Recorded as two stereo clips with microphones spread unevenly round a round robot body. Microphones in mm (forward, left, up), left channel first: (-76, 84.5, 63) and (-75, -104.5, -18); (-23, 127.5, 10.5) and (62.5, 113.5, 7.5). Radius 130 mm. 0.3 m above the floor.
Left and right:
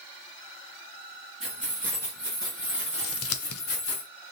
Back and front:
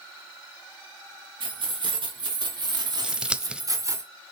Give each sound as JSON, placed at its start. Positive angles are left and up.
{"t": 1.4, "sound": "keys jangling", "azimuth_deg": -5, "distance_m": 3.5}
{"t": 3.0, "sound": "scissors", "azimuth_deg": 65, "distance_m": 0.9}